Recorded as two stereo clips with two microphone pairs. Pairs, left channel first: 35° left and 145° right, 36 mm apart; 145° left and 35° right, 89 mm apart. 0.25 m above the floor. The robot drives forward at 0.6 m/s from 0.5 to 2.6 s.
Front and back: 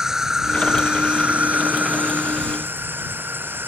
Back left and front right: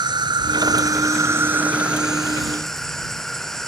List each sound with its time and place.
0.0 s an insect: 70° right; by 3.7 s 130° right